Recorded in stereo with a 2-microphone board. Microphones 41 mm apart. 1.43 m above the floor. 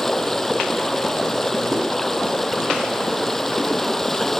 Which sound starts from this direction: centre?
Running water, at 0.0 s.